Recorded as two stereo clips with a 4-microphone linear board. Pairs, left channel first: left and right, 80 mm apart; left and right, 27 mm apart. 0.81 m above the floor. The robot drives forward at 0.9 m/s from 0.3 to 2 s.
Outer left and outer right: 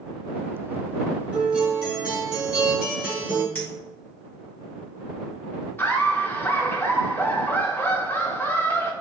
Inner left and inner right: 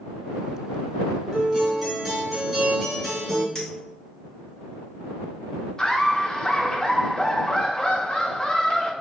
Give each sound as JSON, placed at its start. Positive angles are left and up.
{"t": 1.3, "sound": "a guitar", "side_deg": -15, "distance_m": 1.3}
{"t": 3.5, "sound": "a clink", "side_deg": 15, "distance_m": 2.0}
{"t": 5.8, "sound": "laughter", "side_deg": 25, "distance_m": 0.9}